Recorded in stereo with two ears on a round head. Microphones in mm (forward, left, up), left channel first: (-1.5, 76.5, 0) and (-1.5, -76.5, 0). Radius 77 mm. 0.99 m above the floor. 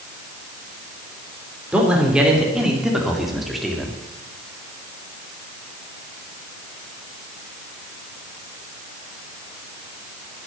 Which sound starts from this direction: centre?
A man speaking, at 1.7 s.